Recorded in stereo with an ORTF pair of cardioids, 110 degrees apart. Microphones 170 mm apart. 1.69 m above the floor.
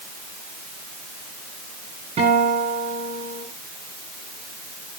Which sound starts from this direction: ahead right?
A guitar, at 2.2 s.